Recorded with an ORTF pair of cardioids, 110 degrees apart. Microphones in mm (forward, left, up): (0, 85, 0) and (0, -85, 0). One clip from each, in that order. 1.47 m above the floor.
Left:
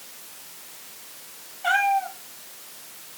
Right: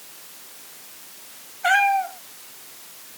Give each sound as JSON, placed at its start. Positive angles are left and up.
{"t": 1.6, "sound": "a cat meowing", "azimuth_deg": -45, "distance_m": 6.0}